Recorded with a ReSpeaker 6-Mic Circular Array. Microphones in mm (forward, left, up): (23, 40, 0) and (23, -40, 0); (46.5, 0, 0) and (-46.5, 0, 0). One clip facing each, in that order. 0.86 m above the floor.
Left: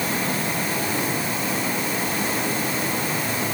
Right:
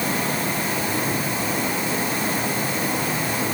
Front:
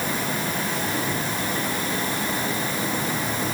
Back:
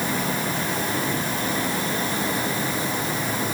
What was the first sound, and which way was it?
Only background noise.